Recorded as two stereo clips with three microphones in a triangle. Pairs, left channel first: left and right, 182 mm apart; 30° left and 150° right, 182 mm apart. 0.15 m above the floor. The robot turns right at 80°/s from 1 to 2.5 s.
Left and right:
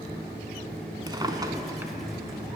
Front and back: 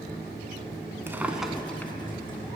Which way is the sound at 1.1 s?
95° right.